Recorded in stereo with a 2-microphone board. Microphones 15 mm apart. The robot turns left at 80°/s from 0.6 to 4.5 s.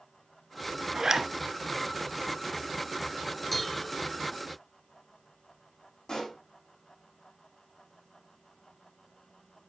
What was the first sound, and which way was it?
A zipper, 40° right (ahead or behind).